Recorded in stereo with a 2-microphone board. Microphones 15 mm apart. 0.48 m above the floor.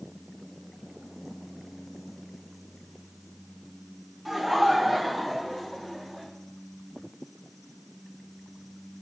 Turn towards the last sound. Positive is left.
turn(degrees=15)  # may be behind; listen again after turning